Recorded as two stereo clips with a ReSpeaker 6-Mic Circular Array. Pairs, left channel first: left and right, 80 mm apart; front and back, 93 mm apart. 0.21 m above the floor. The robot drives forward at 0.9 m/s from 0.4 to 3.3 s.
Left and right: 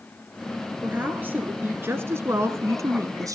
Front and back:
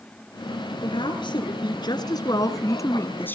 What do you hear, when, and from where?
0.8 s a woman speaking: 20° right, 3 m; by 3.3 s 65° right, 1.6 m